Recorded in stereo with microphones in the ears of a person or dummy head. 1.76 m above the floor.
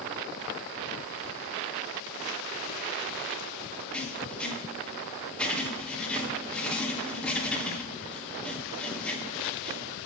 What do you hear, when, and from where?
3.9 s writing: 5° left (ahead or behind), 1.2 m